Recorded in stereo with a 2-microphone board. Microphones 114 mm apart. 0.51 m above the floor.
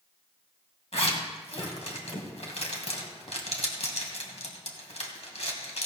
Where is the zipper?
65° left (ahead or behind), 2 m.